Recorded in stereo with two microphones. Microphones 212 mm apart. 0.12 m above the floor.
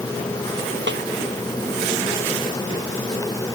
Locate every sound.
0.9 s a snare drum: 60° right (ahead or behind)